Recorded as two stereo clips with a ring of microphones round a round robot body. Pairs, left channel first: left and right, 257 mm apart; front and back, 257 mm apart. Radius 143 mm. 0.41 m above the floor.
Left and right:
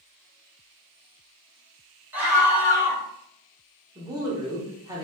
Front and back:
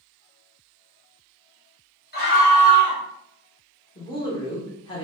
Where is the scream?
10° right, 1.4 m.